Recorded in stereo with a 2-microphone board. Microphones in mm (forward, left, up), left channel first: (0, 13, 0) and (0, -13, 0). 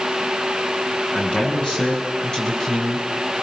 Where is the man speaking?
40° left (ahead or behind), 7 m; by 3.4 s 15° left (ahead or behind), 6.5 m.